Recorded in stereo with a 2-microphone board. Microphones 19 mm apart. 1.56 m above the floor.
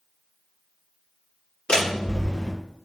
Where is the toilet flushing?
I don't hear a toilet flushing.